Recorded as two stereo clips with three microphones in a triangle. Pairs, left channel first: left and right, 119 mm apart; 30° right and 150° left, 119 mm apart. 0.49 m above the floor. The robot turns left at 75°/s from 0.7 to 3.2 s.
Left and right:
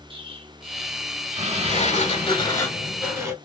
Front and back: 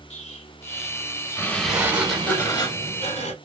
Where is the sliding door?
95° left, 0.8 m; by 3.4 s 20° right, 0.8 m.